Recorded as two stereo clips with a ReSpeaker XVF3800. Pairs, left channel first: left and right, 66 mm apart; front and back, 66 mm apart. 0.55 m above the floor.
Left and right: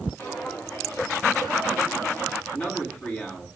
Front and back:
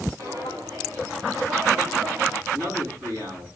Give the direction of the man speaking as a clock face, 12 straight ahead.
7 o'clock.